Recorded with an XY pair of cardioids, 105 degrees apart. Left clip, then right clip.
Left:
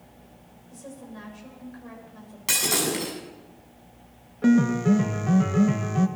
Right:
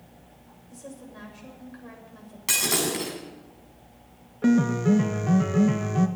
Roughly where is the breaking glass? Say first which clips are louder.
Even; ahead.